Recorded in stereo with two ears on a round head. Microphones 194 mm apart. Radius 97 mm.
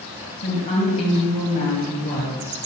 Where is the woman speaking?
30° left (ahead or behind), 2.5 m.